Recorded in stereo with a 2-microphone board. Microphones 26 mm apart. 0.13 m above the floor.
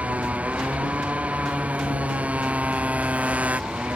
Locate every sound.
0.0 s a motorcycle: 70° right (ahead or behind)